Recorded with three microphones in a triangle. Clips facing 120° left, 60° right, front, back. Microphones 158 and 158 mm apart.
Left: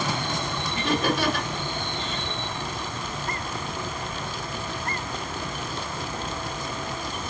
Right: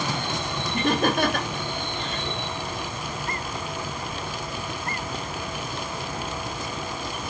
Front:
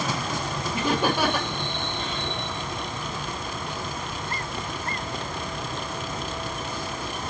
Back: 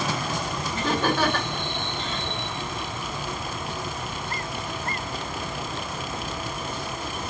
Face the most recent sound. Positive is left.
turn(degrees=-75)